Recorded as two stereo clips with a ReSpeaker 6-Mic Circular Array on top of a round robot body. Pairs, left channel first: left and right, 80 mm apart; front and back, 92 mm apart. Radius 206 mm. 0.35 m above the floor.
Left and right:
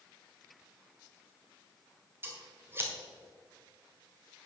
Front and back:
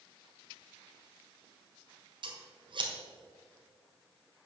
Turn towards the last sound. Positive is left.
turn(degrees=-150)